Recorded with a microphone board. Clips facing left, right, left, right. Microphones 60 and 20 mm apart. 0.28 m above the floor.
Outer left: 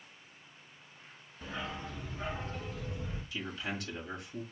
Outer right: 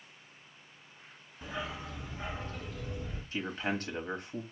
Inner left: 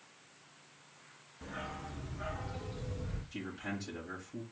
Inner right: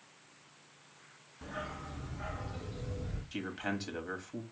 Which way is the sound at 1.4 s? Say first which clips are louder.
Outer right 1 dB, inner right 1 dB; 10° right (ahead or behind).